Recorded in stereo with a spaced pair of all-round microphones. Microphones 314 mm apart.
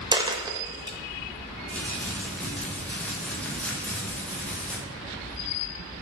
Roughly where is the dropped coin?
Centre.